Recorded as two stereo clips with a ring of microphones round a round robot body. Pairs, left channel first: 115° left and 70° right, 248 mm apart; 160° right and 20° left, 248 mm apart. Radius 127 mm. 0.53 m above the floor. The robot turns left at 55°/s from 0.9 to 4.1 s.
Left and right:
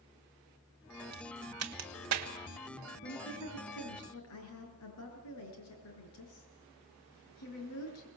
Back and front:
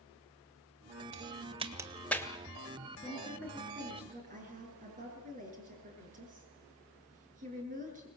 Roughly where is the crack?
Ahead.